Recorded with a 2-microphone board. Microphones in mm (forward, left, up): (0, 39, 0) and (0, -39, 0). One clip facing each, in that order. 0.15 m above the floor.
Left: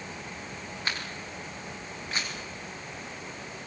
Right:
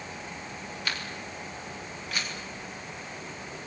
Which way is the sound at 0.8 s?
25° left (ahead or behind).